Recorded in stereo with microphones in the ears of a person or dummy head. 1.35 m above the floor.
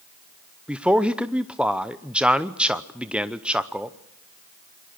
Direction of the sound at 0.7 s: 5° right (ahead or behind).